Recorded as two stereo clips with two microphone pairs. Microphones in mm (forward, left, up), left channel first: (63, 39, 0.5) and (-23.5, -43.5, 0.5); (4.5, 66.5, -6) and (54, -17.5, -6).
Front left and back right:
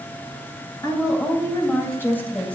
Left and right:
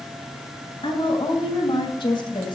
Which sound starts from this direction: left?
A woman speaking, at 0.8 s.